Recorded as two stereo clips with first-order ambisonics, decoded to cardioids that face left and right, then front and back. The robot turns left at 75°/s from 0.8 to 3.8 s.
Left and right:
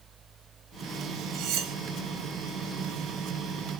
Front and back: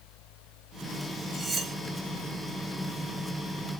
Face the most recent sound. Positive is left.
turn(degrees=85)